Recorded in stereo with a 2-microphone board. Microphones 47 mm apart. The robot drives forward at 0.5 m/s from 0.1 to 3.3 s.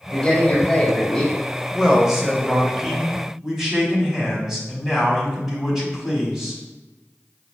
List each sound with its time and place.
0.1 s a man speaking: 20° left (ahead or behind), 1.2 m; by 1.3 s 15° left (ahead or behind), 1.6 m
1.7 s a man speaking: 10° right (ahead or behind), 0.9 m; by 6.6 s 5° right (ahead or behind), 1.4 m